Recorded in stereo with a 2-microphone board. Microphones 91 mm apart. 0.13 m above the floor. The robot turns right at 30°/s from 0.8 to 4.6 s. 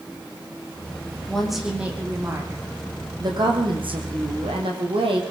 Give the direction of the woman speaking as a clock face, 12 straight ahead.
6 o'clock.